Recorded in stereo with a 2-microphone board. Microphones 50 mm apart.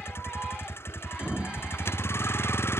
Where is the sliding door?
20° right (ahead or behind).